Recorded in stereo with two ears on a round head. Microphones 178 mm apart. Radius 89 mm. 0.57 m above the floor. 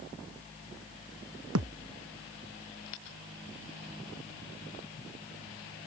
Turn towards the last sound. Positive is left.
turn(degrees=-85)